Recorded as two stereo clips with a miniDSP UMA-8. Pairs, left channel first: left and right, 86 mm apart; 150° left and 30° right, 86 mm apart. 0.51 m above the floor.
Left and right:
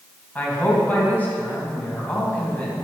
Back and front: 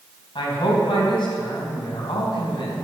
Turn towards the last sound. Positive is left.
turn(degrees=160)